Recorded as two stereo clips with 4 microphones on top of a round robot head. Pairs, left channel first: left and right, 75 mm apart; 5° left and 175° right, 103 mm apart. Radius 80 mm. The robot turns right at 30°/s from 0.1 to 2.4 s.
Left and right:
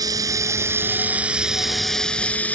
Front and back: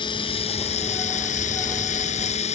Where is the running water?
50° right; by 2.6 s 20° left.